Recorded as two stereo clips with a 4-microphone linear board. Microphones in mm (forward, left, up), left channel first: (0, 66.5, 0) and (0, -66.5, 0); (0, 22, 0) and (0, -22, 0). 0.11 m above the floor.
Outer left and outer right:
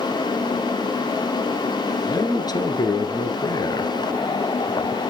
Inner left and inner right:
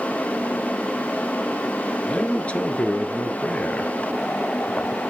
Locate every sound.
2.1 s a man speaking: 30° left (ahead or behind), 1.3 m